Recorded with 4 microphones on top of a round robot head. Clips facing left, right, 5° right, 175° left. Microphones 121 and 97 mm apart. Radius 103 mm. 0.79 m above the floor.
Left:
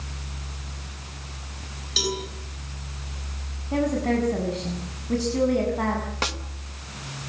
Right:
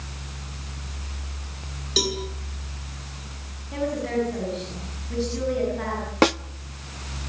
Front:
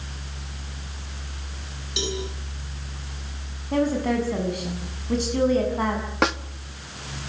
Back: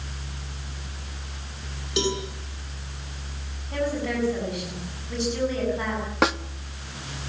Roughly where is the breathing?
I don't hear breathing.